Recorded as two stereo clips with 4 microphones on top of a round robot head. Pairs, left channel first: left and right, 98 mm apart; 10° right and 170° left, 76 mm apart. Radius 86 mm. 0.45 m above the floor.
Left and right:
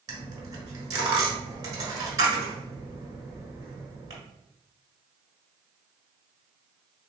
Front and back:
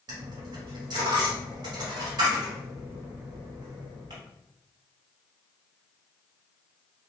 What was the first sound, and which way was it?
A dropped coin, 140° right.